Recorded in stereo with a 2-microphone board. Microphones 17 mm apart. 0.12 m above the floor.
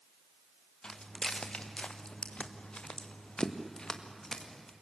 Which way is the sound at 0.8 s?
55° left (ahead or behind).